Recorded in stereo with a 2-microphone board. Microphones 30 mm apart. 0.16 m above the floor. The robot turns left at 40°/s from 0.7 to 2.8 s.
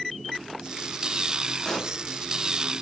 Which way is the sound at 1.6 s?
20° left (ahead or behind).